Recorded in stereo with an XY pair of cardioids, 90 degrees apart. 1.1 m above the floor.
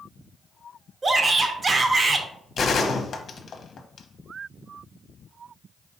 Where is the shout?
40° right, 0.9 m.